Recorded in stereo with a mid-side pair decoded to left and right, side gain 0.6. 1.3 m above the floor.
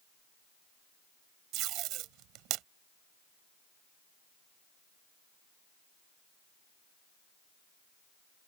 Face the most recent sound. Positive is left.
turn(degrees=-70)